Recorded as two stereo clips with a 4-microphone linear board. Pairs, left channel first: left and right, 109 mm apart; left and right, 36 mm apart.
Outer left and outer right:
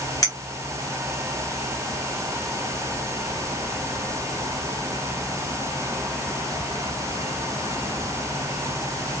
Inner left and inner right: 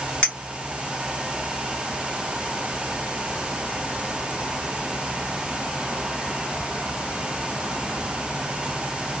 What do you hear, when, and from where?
0.2 s a clink: 30° left (ahead or behind), 1.5 m